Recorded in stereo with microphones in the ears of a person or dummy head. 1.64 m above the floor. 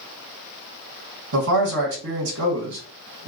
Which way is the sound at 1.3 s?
75° right (ahead or behind).